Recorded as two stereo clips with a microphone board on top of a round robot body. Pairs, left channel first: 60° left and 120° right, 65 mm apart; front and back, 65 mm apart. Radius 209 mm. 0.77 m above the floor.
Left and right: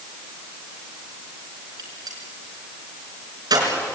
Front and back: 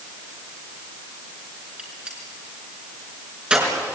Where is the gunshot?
105° right, 4.5 m.